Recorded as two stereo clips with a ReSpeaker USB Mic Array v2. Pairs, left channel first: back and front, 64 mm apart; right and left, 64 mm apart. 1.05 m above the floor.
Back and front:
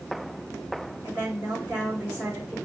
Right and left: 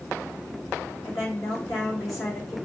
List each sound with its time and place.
1.0 s a woman speaking: 60° right, 3.5 m